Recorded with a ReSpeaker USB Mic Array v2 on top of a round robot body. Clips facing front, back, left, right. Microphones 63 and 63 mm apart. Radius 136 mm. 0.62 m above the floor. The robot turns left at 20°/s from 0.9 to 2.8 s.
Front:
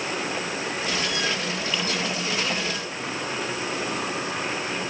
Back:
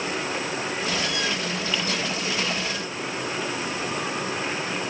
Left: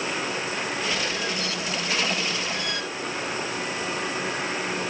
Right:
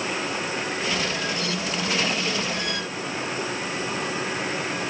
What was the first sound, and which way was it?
Only background noise.